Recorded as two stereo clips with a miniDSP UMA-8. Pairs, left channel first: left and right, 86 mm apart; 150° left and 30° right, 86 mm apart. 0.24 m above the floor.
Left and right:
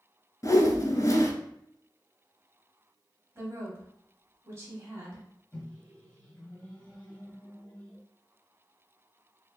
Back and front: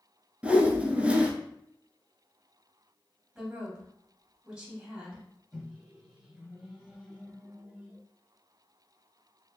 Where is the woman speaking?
100° right, 1.3 m.